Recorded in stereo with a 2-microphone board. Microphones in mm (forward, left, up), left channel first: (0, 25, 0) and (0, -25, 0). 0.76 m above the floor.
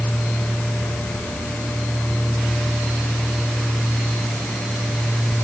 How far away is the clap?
I don't hear a clap.